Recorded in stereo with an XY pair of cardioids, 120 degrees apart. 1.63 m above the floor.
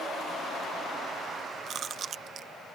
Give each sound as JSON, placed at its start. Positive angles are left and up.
{"t": 1.7, "sound": "chewing", "azimuth_deg": -55}